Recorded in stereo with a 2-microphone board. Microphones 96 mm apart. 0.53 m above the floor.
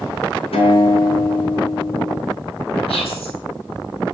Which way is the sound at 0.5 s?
85° left.